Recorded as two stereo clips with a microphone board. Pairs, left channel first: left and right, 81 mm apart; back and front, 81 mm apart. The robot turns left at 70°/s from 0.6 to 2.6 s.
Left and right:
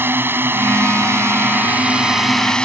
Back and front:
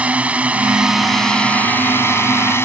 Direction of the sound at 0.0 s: 60° right.